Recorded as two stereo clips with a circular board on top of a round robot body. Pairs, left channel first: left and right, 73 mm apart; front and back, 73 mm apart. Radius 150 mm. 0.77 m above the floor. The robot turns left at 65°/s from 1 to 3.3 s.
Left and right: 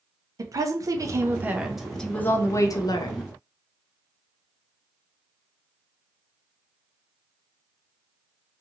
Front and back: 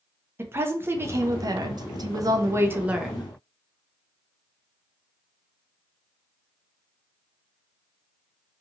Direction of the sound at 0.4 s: 125° right.